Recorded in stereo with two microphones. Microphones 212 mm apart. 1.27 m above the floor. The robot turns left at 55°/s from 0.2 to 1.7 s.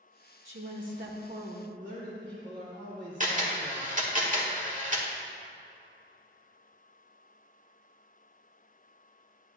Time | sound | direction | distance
0.5 | a woman speaking | 85° right | 1.7 m
1.8 | a man speaking | 60° right (ahead or behind) | 3 m
3.2 | a camera shutter | 40° right (ahead or behind) | 1.5 m